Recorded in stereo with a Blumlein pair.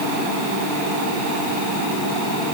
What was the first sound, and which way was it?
Only background noise.